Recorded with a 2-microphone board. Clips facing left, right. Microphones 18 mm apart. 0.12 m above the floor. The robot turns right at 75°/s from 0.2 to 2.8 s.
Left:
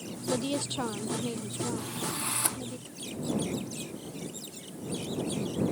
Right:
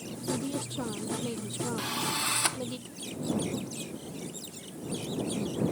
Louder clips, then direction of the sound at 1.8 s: Right 4 dB; 80° right.